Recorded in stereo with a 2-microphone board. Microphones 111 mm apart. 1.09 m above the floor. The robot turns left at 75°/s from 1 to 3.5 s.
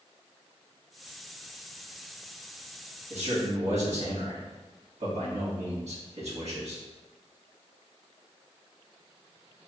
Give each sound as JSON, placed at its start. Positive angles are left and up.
{"t": 3.1, "sound": "a man speaking", "side_deg": -70, "distance_m": 1.5}